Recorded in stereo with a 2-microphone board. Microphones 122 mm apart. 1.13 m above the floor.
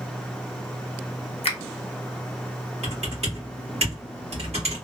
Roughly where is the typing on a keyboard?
Right.